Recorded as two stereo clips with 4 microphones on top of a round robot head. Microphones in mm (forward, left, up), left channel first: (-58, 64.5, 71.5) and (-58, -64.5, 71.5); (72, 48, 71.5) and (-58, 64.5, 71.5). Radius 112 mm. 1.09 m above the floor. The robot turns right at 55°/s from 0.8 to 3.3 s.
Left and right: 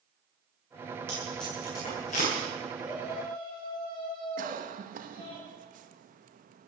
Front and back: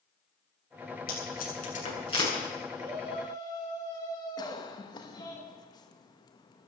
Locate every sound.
1.1 s tape being pulled: 15° right, 8.5 m; by 2.3 s 55° left, 8.5 m
2.7 s a shout: 20° left, 9 m; by 5.4 s 50° left, 9 m
4.4 s a cough: 70° right, 1.6 m